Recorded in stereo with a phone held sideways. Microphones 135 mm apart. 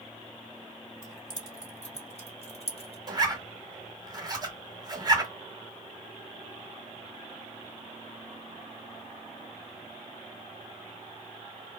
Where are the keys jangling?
60° left (ahead or behind), 2 m; by 3.0 s 45° left (ahead or behind), 1.0 m.